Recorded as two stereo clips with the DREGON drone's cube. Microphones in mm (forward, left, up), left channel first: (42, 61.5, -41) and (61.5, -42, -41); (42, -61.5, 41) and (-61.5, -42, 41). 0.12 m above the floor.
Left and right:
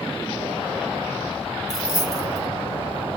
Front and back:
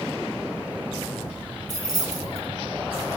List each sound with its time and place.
1.7 s keys jangling: 135° left, 1.4 m